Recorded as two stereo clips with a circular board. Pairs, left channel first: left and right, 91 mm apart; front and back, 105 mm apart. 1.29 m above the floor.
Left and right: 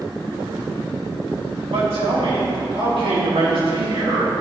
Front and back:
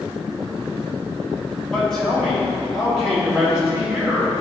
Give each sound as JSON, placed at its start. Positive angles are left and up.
{"t": 1.7, "sound": "a man speaking", "azimuth_deg": -80, "distance_m": 2.5}